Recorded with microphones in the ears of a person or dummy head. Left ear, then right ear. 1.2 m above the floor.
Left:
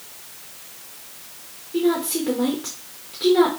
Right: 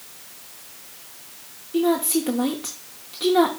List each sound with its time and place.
1.7 s a woman speaking: 15° right (ahead or behind), 0.6 m